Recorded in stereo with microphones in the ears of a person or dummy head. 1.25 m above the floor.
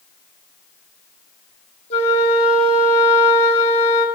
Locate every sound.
1.9 s a flute: 35° left (ahead or behind), 1.3 m